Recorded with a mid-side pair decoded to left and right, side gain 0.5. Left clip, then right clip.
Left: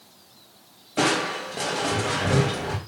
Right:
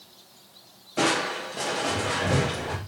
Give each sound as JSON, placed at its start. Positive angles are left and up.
{"t": 1.0, "sound": "crushing", "azimuth_deg": 15, "distance_m": 2.0}